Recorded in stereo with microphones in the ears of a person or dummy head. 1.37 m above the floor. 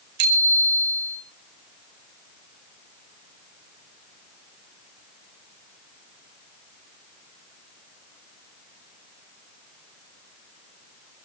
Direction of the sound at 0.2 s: 50° right (ahead or behind).